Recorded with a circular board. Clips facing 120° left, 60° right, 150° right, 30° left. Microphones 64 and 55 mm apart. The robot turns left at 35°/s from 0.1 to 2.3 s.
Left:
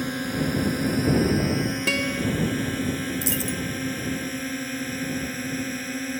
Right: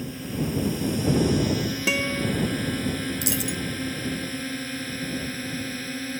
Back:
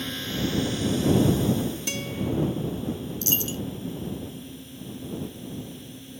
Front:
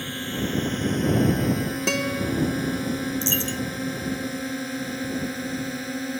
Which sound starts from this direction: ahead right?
A dropped coin, at 3.2 s.